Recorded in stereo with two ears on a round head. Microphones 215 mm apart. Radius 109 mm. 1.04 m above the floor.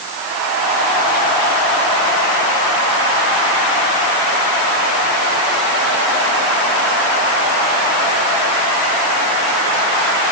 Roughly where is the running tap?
No running tap in this recording.